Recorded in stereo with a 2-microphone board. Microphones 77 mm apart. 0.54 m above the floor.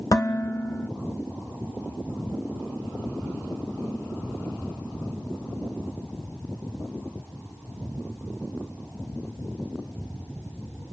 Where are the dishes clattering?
55° left (ahead or behind), 1.0 m.